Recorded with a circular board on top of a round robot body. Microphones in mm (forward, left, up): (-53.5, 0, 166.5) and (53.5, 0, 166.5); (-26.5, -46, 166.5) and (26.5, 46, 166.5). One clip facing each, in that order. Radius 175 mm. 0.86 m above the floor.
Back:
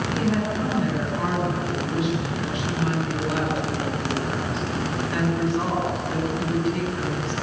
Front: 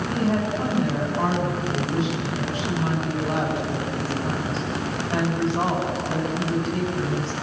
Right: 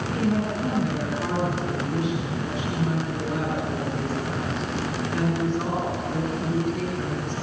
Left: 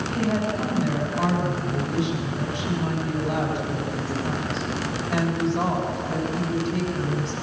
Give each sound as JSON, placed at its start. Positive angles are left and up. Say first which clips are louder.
{"t": 0.1, "sound": "a woman speaking", "louder": "front 1 dB, even", "azimuth_deg": 60, "distance_m": 7.0}